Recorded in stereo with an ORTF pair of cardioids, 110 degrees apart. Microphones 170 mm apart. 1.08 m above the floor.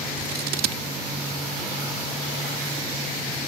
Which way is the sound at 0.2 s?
65° right.